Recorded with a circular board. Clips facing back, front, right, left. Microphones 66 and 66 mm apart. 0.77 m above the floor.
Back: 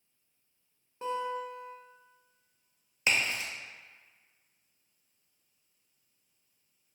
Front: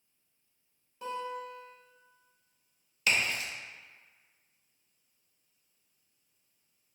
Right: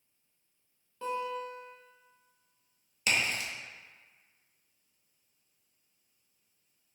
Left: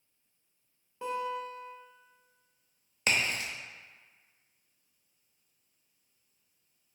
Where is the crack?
125° left, 0.6 m.